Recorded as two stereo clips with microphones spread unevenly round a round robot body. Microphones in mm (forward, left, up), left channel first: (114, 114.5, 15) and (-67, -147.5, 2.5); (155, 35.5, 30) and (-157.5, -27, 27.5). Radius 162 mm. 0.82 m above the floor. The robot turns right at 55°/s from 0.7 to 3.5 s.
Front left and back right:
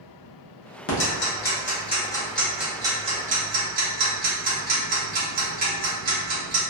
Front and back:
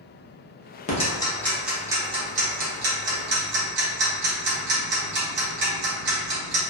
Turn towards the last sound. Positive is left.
turn(degrees=-155)